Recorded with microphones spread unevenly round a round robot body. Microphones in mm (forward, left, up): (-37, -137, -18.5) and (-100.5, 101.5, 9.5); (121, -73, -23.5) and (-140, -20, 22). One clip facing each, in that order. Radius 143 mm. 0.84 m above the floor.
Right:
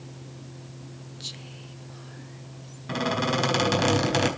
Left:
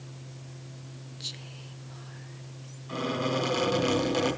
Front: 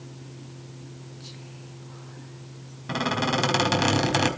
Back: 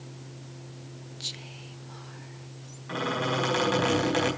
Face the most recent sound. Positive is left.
turn(degrees=-35)